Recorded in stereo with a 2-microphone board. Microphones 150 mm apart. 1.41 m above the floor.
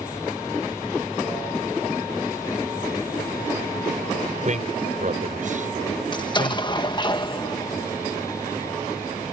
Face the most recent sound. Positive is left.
turn(degrees=30)  # may be behind; listen again after turning